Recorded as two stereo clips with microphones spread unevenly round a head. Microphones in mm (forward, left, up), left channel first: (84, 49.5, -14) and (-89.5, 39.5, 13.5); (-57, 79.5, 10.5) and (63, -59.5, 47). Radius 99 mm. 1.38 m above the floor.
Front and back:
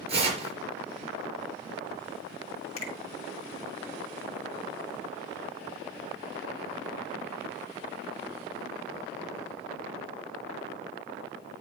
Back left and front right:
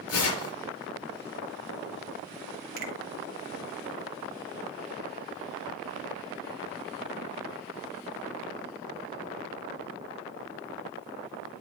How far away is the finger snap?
About 1.8 m.